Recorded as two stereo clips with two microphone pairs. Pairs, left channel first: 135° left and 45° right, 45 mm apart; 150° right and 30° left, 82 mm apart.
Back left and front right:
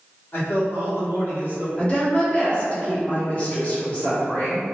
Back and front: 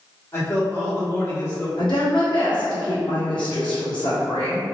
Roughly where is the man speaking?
Behind.